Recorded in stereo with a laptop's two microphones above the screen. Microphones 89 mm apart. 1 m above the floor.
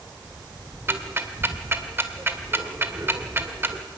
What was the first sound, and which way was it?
Ticking, 25° right (ahead or behind).